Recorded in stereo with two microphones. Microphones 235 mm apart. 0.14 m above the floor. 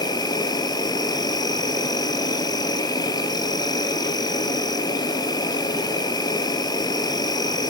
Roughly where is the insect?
Centre.